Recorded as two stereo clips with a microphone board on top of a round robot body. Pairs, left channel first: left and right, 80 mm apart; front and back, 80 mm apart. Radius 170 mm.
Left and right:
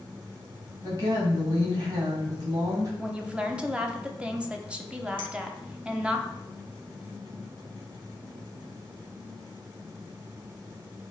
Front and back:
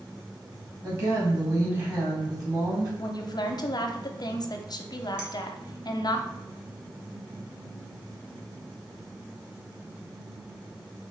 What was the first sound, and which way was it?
A woman speaking, 135° right.